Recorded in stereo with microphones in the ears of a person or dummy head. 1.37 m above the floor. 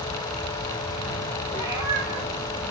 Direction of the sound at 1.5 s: 15° right (ahead or behind).